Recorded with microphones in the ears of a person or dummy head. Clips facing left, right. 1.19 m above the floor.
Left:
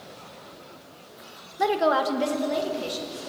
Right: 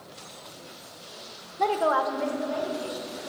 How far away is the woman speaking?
About 1.0 m.